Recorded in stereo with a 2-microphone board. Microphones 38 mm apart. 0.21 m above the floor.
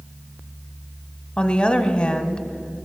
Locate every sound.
1.4 s a woman speaking: 25° left (ahead or behind), 1.0 m